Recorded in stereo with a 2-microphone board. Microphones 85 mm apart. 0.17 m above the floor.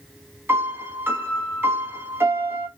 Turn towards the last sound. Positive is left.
turn(degrees=-25)  # may be behind; listen again after turning